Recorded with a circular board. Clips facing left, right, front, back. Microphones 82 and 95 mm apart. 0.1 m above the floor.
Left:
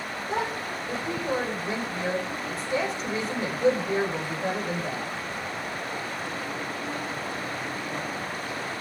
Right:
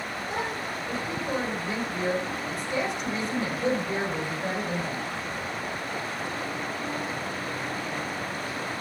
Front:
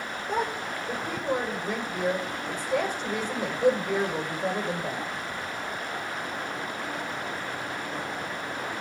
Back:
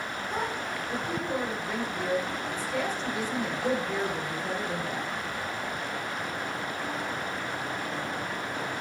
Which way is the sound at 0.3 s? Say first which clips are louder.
Left 3 dB, front 4 dB; 30° left.